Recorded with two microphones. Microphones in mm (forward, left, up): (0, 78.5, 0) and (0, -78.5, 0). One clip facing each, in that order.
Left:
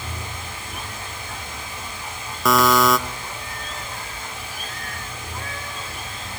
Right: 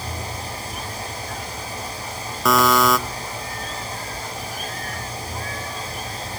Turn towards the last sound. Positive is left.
turn(degrees=0)  # may be behind; listen again after turning